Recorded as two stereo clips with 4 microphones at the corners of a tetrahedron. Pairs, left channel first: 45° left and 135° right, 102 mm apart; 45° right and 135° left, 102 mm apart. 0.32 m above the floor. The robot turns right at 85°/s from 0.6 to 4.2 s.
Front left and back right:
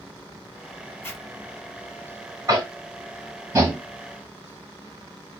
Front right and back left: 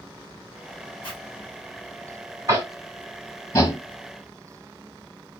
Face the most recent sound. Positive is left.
turn(degrees=-40)